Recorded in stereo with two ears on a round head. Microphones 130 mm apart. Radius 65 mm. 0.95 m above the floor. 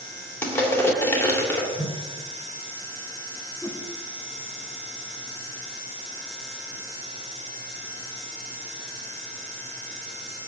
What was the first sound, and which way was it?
Crushing, 20° left (ahead or behind).